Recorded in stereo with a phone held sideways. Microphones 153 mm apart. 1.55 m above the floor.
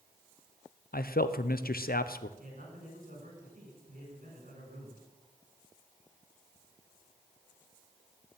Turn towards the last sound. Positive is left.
turn(degrees=-60)  # may be behind; listen again after turning